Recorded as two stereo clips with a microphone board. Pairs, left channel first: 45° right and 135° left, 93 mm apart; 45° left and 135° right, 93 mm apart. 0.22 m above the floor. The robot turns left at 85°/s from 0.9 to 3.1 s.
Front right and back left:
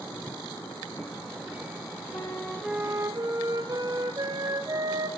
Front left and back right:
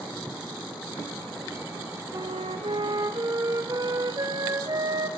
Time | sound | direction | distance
2.1 | a flute | 95° right | 4 m